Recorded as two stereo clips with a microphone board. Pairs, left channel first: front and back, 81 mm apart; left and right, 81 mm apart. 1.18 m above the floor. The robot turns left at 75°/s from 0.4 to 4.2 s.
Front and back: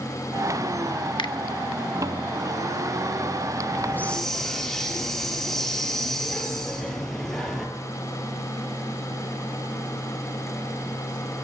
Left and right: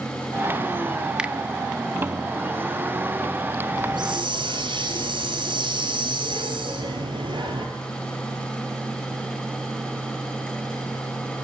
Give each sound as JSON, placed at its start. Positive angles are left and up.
{"t": 1.2, "sound": "a finger snap", "azimuth_deg": -10, "distance_m": 1.3}
{"t": 3.8, "sound": "a hiss", "azimuth_deg": -55, "distance_m": 5.0}